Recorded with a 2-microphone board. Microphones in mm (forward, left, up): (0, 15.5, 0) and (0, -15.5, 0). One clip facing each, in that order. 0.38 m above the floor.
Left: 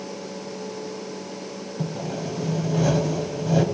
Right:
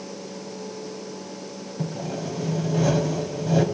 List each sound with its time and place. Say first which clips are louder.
1.8 s sawing: even; 5° left (ahead or behind), 1.3 m